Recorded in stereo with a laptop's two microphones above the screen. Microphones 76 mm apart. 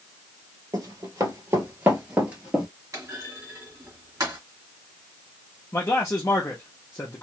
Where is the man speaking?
35° left (ahead or behind), 0.6 m.